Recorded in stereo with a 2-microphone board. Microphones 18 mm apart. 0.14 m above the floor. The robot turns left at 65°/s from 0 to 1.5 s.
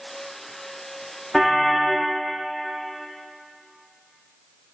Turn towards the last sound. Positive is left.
turn(degrees=0)  # may be behind; listen again after turning